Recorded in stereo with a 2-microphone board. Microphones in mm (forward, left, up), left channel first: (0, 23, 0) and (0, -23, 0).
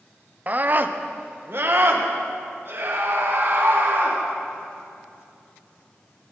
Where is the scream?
35° right (ahead or behind), 0.7 m; by 4.2 s 60° right (ahead or behind), 4 m.